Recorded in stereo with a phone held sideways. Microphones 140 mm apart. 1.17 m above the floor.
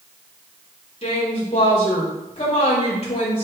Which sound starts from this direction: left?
A woman speaking, at 1.0 s.